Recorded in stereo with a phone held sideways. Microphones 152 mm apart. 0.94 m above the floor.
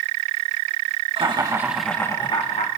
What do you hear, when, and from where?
1.2 s laughter: 35° right (ahead or behind), 1.2 m; by 2.7 s 50° left (ahead or behind), 1.3 m